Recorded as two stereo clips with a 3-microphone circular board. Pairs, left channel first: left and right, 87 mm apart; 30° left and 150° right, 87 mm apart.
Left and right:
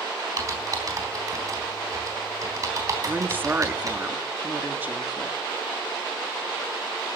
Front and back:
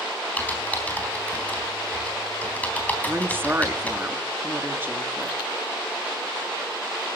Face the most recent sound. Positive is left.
turn(degrees=-125)